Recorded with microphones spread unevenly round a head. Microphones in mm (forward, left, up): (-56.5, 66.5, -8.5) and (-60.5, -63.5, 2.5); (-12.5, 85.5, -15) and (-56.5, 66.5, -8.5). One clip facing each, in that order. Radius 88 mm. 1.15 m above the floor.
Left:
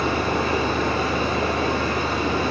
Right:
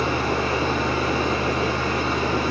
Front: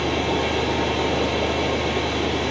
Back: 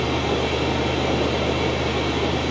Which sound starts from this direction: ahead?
A fan, at 0.0 s.